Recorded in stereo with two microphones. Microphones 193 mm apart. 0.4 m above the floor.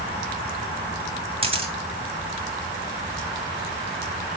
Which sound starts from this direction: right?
A camera shutter, at 1.4 s.